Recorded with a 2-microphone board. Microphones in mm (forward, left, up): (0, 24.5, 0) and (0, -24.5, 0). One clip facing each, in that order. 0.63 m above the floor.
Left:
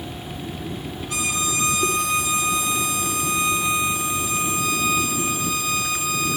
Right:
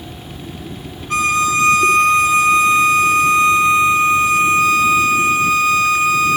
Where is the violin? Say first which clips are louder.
Right 11 dB; 45° right (ahead or behind), 1.1 m.